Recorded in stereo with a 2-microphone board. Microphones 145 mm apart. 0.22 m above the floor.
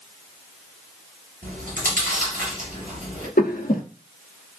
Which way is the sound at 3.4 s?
85° left.